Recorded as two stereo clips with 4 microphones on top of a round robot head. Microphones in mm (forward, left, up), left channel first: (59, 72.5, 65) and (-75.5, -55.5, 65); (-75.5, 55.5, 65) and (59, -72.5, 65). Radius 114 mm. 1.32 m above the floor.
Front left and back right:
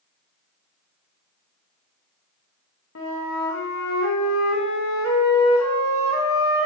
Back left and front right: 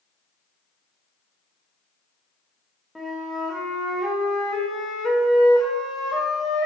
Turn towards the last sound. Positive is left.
turn(degrees=45)